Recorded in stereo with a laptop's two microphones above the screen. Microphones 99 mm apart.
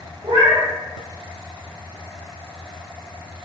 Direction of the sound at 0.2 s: 75° right (ahead or behind).